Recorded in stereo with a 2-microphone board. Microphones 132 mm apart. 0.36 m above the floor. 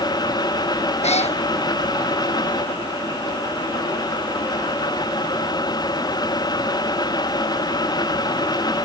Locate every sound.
1.0 s a cat meowing: 55° left (ahead or behind)